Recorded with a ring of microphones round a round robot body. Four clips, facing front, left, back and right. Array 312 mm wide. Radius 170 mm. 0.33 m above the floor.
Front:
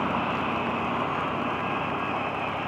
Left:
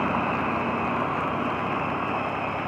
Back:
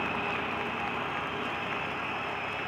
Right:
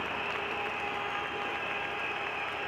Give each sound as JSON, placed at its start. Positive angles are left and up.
{"t": 0.0, "sound": "a vehicle", "azimuth_deg": 60}